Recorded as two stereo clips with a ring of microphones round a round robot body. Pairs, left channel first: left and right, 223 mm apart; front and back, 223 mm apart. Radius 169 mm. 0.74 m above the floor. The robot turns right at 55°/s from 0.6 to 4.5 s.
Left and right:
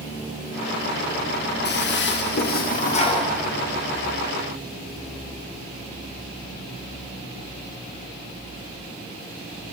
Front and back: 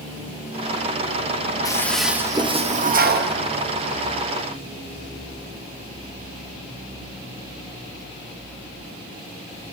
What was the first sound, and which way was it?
A toilet flushing, 70° left.